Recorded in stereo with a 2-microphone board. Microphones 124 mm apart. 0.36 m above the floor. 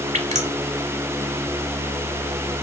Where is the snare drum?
I don't hear a snare drum.